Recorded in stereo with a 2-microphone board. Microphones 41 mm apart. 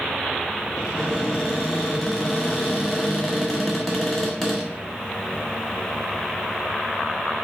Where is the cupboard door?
5° left (ahead or behind), 1.3 m.